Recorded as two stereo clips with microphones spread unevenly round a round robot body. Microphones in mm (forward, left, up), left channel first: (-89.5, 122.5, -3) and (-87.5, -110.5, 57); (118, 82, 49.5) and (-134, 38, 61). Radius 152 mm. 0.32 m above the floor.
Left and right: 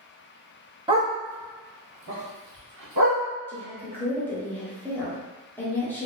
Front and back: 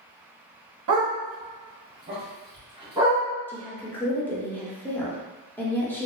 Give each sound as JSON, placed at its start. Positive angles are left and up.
{"t": 0.9, "sound": "a dog barking", "azimuth_deg": -165, "distance_m": 0.8}
{"t": 3.5, "sound": "a woman speaking", "azimuth_deg": 75, "distance_m": 0.9}